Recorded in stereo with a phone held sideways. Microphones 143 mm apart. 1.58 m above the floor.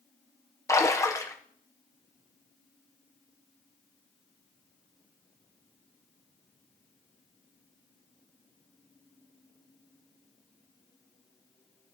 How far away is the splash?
About 1.3 m.